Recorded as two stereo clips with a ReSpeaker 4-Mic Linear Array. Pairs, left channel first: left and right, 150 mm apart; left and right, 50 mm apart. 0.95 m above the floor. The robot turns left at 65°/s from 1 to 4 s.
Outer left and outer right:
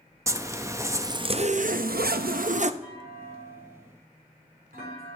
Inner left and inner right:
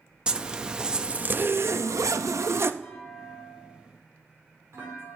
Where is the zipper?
20° right, 0.6 m; by 2.7 s 130° right, 0.6 m.